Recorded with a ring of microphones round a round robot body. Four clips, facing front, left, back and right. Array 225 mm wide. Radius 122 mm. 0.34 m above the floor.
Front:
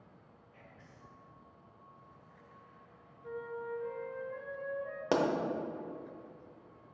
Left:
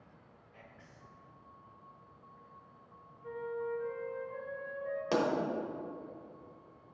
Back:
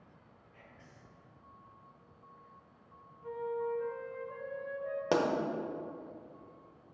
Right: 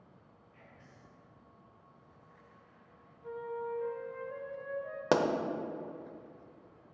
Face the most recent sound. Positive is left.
turn(degrees=-90)